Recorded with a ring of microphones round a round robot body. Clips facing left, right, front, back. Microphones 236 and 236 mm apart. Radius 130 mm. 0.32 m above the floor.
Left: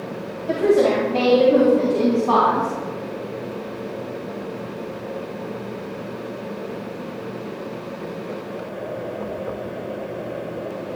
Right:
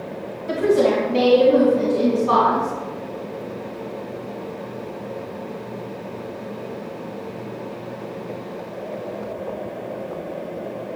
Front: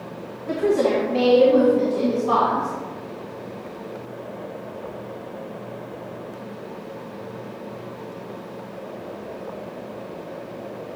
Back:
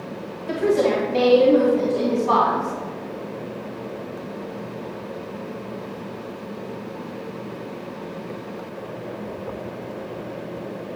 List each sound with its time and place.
0.5 s a woman speaking: 150° right, 2 m; by 2.7 s 155° right, 3 m